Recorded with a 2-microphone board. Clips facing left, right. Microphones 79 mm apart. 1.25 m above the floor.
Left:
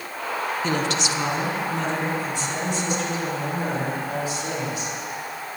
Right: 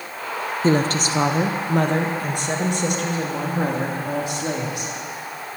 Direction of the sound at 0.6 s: 35° right (ahead or behind).